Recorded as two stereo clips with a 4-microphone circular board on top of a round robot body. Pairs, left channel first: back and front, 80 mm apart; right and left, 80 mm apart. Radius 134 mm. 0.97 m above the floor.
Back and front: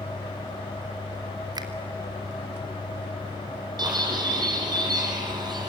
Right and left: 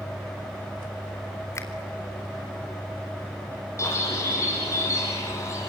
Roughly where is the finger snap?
Ahead right.